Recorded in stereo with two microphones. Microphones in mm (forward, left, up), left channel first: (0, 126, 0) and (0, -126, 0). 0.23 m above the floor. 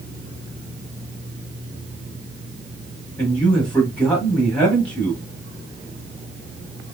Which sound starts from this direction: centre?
A man speaking, at 3.2 s.